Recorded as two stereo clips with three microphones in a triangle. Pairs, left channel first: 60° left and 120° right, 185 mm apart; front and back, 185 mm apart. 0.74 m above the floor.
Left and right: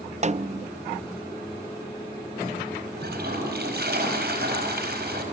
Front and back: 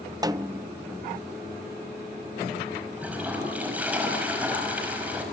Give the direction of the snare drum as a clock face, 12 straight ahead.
4 o'clock.